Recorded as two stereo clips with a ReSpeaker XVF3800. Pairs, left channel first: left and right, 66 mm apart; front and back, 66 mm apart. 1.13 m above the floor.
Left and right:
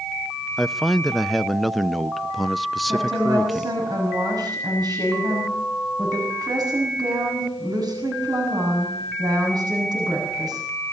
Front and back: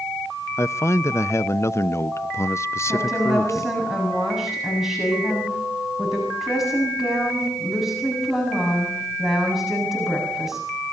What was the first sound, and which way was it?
A man speaking, straight ahead.